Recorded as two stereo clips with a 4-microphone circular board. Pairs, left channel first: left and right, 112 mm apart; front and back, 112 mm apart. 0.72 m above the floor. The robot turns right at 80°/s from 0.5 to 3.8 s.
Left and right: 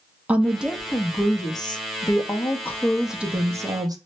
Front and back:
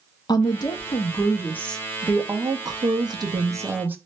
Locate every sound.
0.3 s a woman speaking: 20° right, 0.6 m; by 4.0 s 115° right, 0.6 m